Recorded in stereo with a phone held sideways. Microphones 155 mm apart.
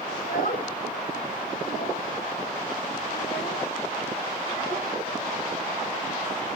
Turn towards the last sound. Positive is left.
turn(degrees=85)